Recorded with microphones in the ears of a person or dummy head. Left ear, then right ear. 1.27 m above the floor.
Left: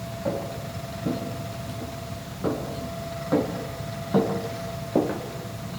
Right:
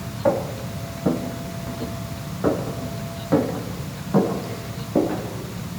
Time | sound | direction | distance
0.2 | footsteps | 40° right (ahead or behind) | 4 m